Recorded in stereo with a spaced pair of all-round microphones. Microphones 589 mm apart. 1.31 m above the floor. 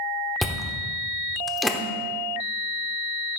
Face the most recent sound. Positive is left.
turn(degrees=0)  # may be behind; listen again after turning